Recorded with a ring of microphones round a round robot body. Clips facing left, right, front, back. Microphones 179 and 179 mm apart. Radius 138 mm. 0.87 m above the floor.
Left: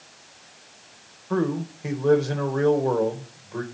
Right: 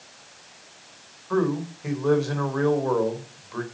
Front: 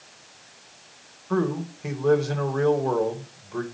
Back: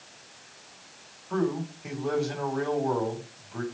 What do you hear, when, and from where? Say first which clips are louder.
1.3 s a man speaking: right 1 dB, front 3 dB; 25° left, 3.5 m